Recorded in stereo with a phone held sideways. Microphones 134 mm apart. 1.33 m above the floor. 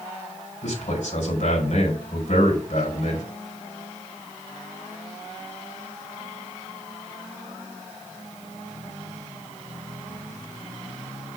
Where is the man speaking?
65° left (ahead or behind), 4.5 m.